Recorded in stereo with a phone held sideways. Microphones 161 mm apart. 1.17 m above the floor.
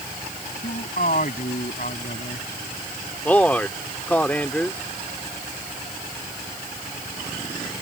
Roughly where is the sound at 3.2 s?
Centre.